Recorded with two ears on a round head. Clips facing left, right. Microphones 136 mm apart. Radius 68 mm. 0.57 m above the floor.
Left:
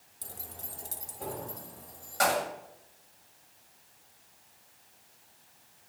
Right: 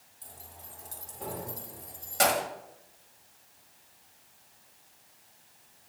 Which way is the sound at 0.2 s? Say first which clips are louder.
Left 3 dB; 75° left (ahead or behind).